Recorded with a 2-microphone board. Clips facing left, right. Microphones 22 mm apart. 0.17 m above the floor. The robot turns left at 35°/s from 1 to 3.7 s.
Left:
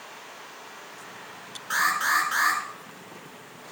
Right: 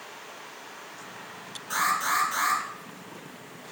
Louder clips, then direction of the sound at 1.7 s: Left 2 dB; 150° left.